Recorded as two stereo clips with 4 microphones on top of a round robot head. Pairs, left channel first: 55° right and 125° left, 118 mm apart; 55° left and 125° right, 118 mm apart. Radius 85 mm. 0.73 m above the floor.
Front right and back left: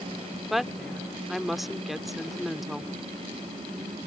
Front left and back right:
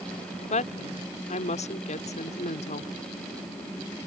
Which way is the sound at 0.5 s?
35° left.